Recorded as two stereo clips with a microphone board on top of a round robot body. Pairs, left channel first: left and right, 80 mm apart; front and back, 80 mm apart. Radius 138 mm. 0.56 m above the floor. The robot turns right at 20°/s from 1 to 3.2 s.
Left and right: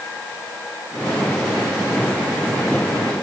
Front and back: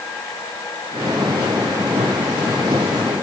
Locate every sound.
Only background noise.